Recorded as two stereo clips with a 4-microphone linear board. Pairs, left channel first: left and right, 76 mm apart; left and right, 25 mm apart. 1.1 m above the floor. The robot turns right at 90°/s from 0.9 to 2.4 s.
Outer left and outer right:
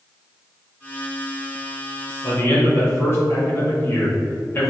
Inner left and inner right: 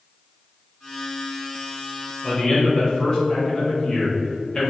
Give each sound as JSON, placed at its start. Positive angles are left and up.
{"t": 2.2, "sound": "a man speaking", "side_deg": 50, "distance_m": 2.5}